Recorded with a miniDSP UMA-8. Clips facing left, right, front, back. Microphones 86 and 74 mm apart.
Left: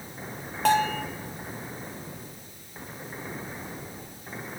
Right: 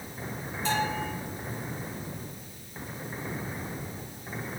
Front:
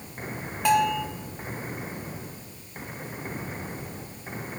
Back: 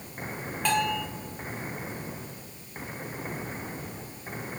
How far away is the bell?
About 2.5 m.